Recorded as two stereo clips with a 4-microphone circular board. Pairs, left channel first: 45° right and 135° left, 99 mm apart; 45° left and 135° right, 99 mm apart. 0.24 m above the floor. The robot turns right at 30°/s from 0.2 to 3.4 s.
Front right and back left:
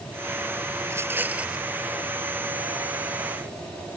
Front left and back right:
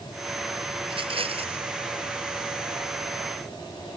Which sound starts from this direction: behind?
A rattle, at 0.8 s.